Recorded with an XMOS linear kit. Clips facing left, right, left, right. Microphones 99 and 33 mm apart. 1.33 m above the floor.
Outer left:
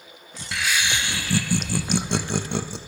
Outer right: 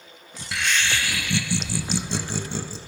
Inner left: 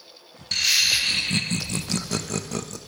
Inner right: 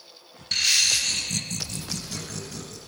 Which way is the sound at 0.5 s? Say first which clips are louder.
Even, inner left 1 dB; centre (ahead or behind).